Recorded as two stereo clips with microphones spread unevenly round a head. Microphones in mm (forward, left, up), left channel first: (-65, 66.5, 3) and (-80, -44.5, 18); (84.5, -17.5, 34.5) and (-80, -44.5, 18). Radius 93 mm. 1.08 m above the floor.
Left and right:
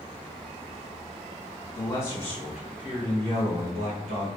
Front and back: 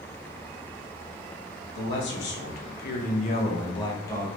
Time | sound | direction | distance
1.8 | a man speaking | 25° left | 1.2 m